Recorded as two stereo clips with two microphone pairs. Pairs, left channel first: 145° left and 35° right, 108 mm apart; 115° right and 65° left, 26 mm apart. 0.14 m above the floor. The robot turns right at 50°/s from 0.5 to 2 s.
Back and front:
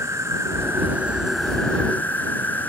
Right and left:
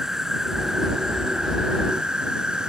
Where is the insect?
10° left; by 2.7 s 85° left.